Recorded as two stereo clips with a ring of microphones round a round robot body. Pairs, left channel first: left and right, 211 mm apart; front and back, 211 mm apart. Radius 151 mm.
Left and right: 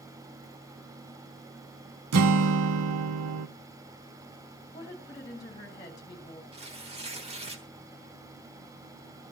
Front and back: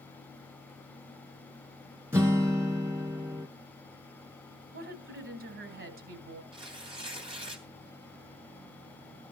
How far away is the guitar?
About 0.6 m.